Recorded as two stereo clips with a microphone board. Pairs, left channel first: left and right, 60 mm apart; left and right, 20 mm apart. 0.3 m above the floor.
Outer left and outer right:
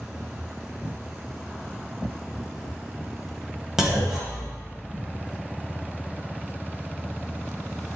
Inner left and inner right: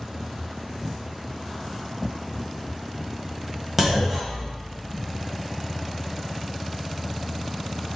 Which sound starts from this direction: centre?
A clunk, at 3.8 s.